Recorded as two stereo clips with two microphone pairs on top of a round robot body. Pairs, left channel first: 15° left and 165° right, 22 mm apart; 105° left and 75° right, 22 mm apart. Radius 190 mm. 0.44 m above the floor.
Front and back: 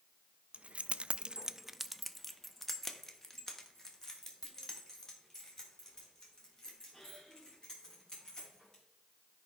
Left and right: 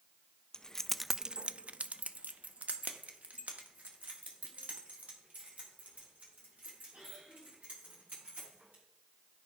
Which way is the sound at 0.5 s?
160° left.